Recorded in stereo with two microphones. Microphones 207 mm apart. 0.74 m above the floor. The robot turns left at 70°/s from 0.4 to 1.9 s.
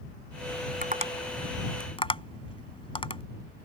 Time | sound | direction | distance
0.8 | tapping | 50° right (ahead or behind) | ?